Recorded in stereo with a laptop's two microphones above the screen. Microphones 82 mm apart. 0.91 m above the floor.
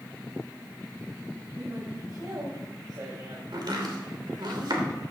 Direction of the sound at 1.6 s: 55° right (ahead or behind).